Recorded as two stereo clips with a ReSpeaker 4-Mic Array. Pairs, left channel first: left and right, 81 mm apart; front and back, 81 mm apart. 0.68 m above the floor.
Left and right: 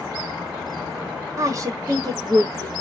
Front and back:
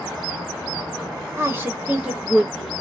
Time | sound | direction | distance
1.4 | a woman speaking | 130° right | 1.0 m